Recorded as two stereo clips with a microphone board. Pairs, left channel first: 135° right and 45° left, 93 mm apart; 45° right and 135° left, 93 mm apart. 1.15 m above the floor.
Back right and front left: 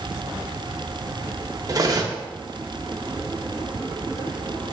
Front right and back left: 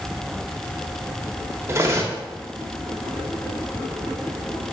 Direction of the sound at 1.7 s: 80° left.